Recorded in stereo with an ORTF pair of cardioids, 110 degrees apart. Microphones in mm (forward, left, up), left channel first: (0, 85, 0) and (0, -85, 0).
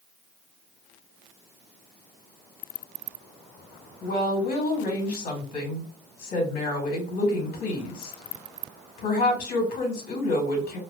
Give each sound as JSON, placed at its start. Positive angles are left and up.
{"t": 4.0, "sound": "a woman speaking", "azimuth_deg": 60, "distance_m": 2.0}